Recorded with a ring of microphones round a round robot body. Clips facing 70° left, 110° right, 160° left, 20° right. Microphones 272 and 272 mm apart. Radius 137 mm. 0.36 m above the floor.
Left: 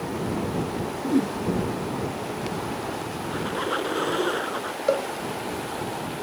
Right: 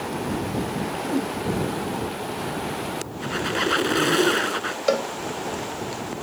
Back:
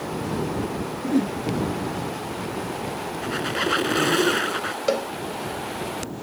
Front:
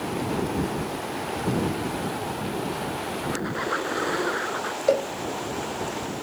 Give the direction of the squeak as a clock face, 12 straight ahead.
5 o'clock.